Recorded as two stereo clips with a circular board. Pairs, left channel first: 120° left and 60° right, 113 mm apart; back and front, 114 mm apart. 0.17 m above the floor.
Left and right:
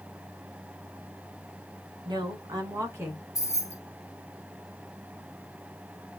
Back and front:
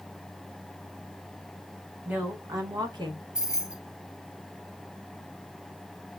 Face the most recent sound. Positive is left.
turn(degrees=80)